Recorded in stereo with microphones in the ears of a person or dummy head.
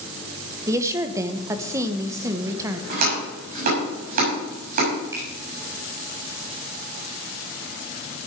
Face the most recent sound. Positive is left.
turn(degrees=-20)  # may be behind; listen again after turning